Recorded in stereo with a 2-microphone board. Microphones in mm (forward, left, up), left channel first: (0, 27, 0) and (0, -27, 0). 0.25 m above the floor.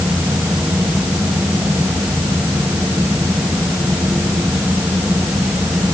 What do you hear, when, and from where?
Only background noise.